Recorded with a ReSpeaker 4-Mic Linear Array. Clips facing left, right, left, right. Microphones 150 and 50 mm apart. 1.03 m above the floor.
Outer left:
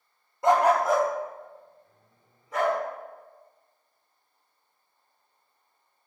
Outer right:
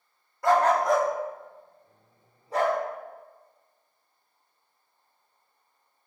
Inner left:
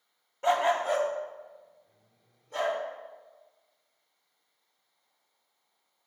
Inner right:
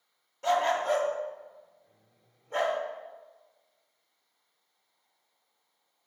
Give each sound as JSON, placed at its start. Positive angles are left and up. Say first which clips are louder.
{"t": 0.4, "sound": "a dog barking", "louder": "outer left 1 dB, inner left 1 dB", "side_deg": 20, "distance_m": 0.7}